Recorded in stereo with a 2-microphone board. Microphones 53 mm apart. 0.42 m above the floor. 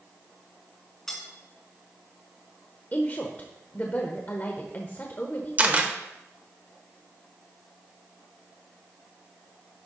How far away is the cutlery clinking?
About 2.5 m.